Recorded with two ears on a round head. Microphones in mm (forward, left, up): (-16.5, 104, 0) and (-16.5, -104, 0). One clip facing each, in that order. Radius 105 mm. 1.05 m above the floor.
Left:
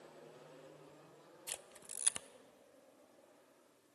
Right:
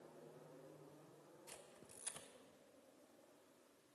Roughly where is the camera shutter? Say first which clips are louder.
Left 4 dB; left.